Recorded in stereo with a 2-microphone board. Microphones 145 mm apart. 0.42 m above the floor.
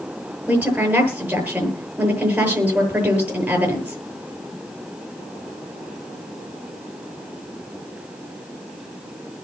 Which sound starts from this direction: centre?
A woman speaking, at 0.5 s.